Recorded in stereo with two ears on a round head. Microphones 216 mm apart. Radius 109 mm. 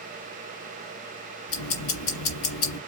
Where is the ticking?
65° left (ahead or behind), 1.6 m.